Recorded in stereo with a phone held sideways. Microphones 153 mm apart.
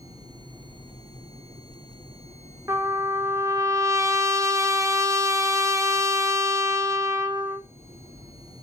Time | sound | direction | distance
2.7 | a trumpet | 20° right (ahead or behind) | 0.7 m